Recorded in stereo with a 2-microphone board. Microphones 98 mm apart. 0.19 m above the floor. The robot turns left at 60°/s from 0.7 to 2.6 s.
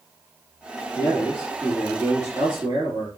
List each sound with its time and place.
0.9 s a man speaking: 40° left, 3.5 m; by 3.1 s 60° right, 3.5 m